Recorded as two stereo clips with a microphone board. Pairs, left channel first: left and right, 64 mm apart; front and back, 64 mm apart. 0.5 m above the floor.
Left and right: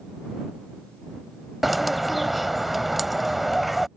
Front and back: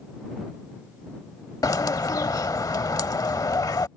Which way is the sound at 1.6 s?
Straight ahead.